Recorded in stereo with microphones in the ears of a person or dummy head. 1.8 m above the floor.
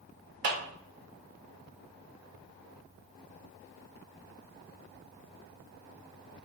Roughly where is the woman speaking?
No woman speaking in this recording.